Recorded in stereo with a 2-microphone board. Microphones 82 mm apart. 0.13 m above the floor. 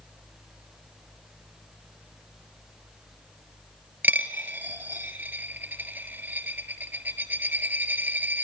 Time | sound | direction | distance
4.0 | a dropped coin | 25° right (ahead or behind) | 0.7 m